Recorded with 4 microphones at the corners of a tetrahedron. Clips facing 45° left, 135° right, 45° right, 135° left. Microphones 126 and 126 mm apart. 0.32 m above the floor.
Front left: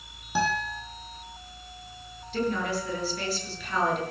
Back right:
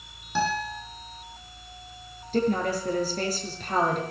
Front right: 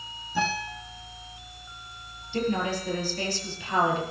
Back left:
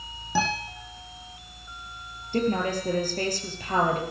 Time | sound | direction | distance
0.3 | a guitar | 125° left | 6.5 m
2.3 | a woman speaking | straight behind | 6 m